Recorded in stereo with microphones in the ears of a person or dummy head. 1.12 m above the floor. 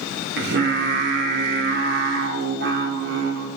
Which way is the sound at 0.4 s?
60° right (ahead or behind).